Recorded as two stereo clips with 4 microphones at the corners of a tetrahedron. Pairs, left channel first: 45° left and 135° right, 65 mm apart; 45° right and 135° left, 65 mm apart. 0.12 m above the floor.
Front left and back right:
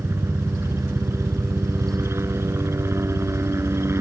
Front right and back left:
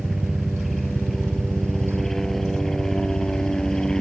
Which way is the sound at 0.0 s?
135° right.